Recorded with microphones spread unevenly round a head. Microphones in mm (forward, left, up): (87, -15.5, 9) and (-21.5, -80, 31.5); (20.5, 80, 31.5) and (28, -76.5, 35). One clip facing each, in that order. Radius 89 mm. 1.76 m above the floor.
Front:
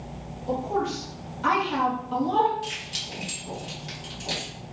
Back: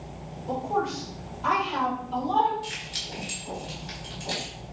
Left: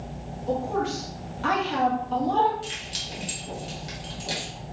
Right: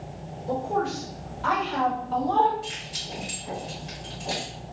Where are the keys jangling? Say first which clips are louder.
Front 2 dB, even; 50° left, 1.5 m.